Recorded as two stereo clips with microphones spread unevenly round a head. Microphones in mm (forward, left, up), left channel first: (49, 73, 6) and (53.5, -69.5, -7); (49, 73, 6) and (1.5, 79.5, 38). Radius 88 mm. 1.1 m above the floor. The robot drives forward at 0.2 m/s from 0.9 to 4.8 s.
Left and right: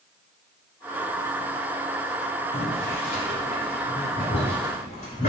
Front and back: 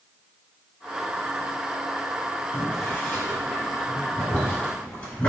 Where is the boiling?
60° left, 1.8 m; by 5.3 s 75° left, 1.7 m.